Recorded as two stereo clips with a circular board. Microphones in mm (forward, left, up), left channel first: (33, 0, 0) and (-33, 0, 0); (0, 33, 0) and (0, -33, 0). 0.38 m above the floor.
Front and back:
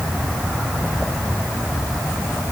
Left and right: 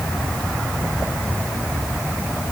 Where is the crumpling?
I don't hear crumpling.